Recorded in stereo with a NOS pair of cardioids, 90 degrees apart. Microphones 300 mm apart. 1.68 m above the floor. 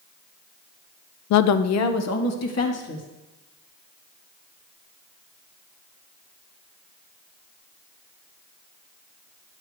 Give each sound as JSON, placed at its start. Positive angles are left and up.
{"t": 1.3, "sound": "a woman speaking", "azimuth_deg": 70, "distance_m": 0.6}